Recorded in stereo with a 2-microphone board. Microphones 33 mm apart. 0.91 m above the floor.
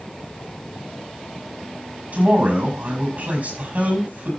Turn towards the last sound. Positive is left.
turn(degrees=-55)  # may be behind; listen again after turning